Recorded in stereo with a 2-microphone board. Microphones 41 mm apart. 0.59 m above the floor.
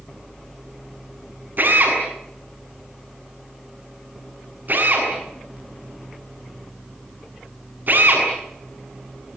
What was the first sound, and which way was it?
A drill, 50° right (ahead or behind).